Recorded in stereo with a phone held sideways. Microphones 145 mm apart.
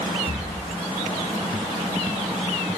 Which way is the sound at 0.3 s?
65° left (ahead or behind).